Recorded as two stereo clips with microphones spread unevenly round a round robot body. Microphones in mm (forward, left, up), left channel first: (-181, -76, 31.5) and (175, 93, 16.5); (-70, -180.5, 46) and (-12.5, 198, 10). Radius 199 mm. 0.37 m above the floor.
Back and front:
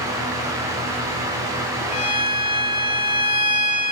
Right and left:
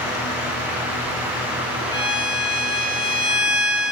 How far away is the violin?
About 1.1 m.